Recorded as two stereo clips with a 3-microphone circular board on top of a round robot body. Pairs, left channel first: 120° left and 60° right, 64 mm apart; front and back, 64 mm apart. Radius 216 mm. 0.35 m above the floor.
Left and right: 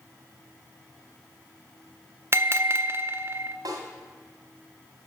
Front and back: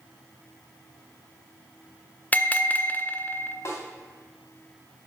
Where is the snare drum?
40° right, 1.8 m.